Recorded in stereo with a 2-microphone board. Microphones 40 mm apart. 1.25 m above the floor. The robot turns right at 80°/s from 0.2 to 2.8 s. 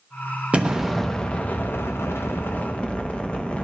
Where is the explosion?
35° right, 0.8 m; by 3.6 s 145° left, 0.8 m.